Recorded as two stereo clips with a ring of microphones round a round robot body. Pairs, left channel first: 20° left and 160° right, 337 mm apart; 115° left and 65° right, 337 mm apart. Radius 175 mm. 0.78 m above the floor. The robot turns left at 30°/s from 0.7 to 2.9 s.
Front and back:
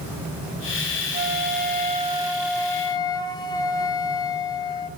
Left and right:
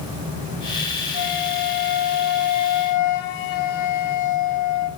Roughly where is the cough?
No cough in this recording.